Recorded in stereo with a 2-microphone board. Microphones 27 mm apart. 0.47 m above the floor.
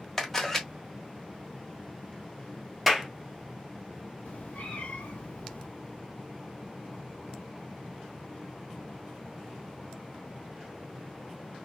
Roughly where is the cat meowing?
Left.